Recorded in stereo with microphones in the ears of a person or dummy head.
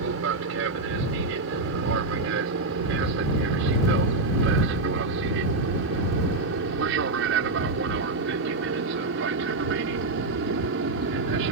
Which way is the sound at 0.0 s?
60° right (ahead or behind).